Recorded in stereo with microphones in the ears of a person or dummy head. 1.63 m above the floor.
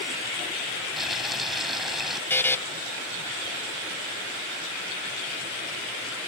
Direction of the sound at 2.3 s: 10° left (ahead or behind).